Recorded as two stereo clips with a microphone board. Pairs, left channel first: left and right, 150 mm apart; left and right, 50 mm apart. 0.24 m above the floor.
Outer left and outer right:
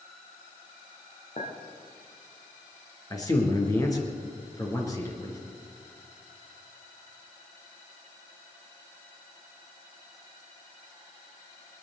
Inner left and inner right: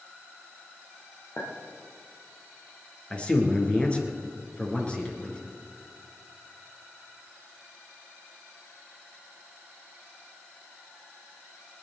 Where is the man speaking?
25° left (ahead or behind), 3.5 m.